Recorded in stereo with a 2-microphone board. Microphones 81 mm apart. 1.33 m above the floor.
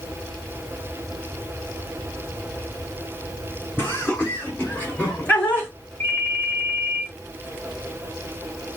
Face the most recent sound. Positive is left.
turn(degrees=20)  # may be behind; listen again after turning